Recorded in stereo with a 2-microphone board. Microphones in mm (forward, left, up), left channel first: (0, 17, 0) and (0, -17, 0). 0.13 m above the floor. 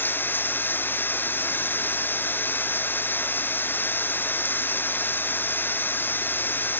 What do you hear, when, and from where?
0.0 s running water: 80° left